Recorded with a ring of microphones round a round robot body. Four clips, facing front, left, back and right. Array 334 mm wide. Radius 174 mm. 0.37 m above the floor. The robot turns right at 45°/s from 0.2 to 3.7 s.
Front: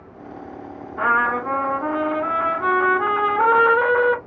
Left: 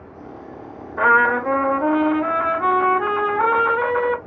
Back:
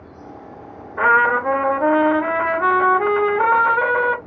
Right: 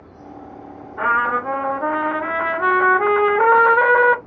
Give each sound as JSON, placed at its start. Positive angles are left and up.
{"t": 1.0, "sound": "a trumpet", "azimuth_deg": 150, "distance_m": 1.1}